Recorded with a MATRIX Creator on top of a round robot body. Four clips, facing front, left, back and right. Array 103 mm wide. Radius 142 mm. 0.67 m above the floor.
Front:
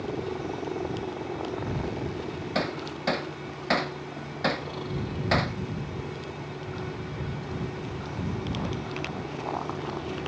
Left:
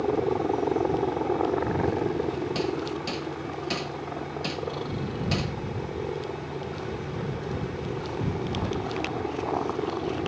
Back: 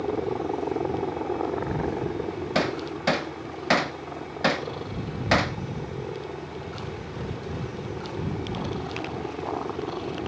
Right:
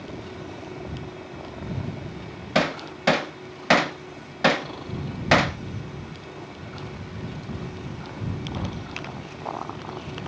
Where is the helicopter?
120° left.